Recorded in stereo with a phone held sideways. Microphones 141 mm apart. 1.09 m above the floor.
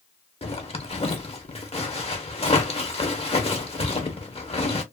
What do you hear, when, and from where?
0.4 s a zipper: 45° left (ahead or behind), 0.7 m